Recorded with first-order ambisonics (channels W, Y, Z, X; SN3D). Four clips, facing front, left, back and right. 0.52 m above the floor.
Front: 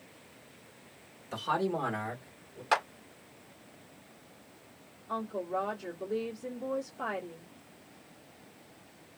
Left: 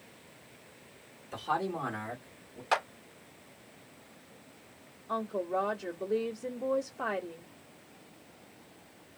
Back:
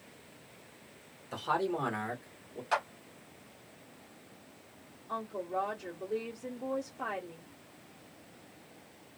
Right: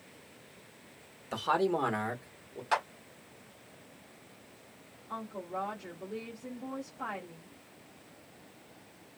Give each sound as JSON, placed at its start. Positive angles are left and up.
{"t": 1.3, "sound": "a man speaking", "azimuth_deg": -85, "distance_m": 1.4}
{"t": 2.7, "sound": "a clap", "azimuth_deg": 25, "distance_m": 1.1}
{"t": 5.1, "sound": "a woman speaking", "azimuth_deg": 75, "distance_m": 1.1}